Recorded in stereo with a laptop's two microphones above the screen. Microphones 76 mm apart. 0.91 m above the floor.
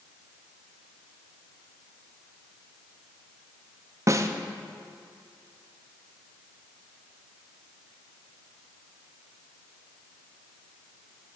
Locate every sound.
4.1 s a snare drum: 40° right (ahead or behind), 0.6 m